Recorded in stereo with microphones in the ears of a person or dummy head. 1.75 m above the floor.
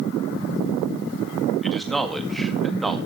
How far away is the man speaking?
About 2.5 m.